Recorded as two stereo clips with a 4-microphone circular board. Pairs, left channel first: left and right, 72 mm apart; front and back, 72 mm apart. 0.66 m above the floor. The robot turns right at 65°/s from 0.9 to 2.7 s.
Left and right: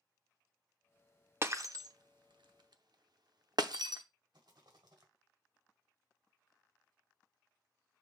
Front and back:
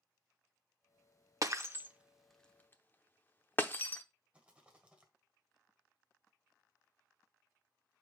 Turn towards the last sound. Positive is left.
turn(degrees=-105)